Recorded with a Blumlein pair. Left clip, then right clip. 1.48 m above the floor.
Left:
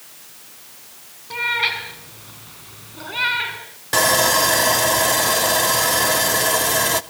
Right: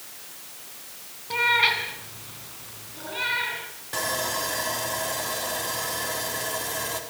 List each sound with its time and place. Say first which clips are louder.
1.3 s a cat meowing: even; straight ahead, 4 m; by 3.6 s 30° left, 4.5 m
3.9 s sawing: left 12 dB; 60° left, 1.0 m